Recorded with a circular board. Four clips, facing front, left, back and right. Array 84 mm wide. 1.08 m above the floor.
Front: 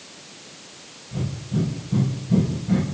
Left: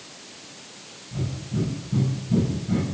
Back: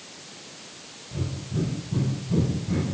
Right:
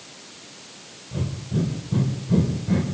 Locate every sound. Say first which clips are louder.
1.1 s breathing: right 2 dB, front 4 dB; 80° right, 5 m